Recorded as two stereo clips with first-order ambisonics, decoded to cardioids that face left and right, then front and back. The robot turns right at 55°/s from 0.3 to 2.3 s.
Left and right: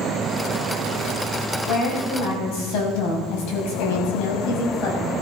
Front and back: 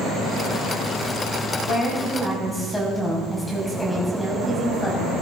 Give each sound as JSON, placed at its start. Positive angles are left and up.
{"t": 1.7, "sound": "a woman speaking", "azimuth_deg": 45, "distance_m": 5.5}